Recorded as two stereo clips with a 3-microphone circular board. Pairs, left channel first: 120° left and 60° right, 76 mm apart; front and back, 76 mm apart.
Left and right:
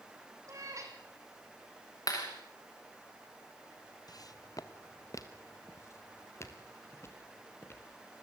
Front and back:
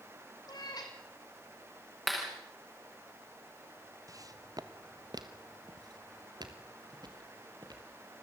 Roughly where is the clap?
Left.